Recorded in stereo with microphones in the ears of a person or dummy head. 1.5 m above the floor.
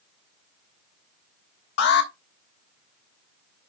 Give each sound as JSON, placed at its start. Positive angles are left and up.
{"t": 1.8, "sound": "an alarm", "side_deg": 55, "distance_m": 1.3}